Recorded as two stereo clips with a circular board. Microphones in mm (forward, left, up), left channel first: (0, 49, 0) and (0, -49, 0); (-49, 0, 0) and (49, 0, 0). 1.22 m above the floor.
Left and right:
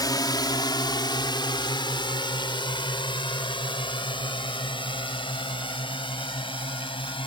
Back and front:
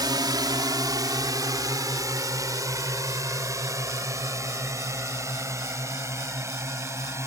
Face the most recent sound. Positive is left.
turn(degrees=60)